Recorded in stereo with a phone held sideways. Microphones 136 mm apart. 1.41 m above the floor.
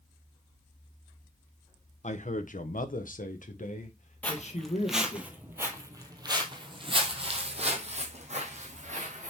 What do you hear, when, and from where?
2.0 s a man speaking: 60° left (ahead or behind), 1.1 m; by 5.2 s 50° left (ahead or behind), 2 m
4.2 s footsteps: 10° left (ahead or behind), 1.7 m; by 9.3 s 60° right (ahead or behind), 3 m